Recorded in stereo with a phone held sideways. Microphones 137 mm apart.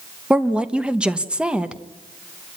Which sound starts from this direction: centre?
A woman speaking, at 0.3 s.